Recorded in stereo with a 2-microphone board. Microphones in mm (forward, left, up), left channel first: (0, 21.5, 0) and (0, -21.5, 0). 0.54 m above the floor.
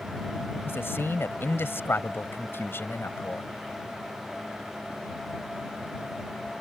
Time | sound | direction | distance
0.7 | a man speaking | 70° left (ahead or behind) | ?